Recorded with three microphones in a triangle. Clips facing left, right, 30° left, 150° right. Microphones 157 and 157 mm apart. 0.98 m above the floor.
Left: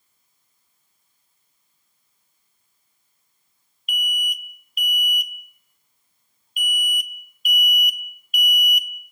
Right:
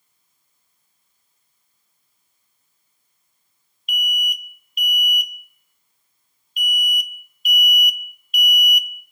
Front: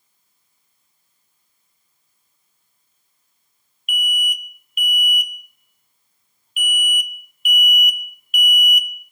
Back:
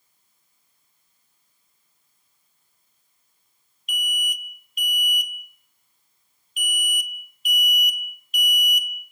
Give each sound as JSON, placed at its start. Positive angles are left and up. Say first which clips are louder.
{"t": 3.9, "sound": "an alarm", "louder": "right 2 dB, front 5 dB", "azimuth_deg": 50, "distance_m": 0.7}